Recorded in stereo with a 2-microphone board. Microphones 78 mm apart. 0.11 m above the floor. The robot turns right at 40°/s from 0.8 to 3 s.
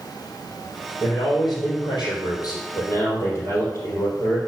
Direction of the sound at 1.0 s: 60° left.